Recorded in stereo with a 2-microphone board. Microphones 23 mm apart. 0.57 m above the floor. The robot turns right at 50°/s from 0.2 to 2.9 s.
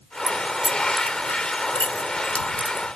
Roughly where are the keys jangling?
Centre.